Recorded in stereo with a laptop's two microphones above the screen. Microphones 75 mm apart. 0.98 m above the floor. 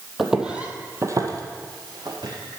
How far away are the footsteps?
About 1.7 m.